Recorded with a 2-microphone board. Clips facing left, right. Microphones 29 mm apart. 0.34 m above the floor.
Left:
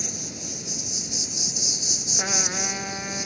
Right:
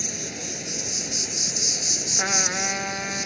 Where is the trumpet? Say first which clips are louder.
Right 4 dB; 20° right (ahead or behind).